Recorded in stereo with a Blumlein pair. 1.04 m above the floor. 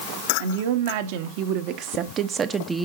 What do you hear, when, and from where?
0.4 s a woman speaking: 55° right, 2 m; by 2.9 s 5° right, 1.1 m